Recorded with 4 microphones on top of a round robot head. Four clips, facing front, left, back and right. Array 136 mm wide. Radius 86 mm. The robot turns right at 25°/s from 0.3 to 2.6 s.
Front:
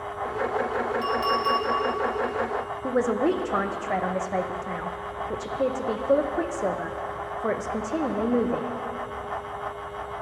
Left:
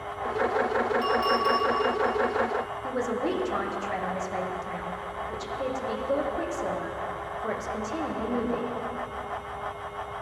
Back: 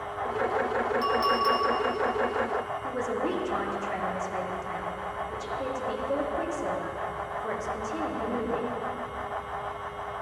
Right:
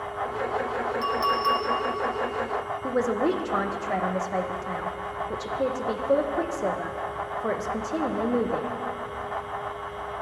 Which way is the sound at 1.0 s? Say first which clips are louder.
Even, even; 140° right.